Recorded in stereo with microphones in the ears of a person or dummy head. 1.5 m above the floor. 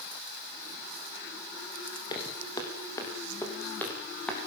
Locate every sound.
2.1 s footsteps: 25° left (ahead or behind), 3.5 m; by 4.5 s 5° left (ahead or behind), 4 m